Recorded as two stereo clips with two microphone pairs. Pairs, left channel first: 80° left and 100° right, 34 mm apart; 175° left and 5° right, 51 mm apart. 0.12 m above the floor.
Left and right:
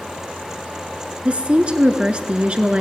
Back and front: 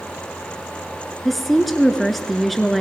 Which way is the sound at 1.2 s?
100° right.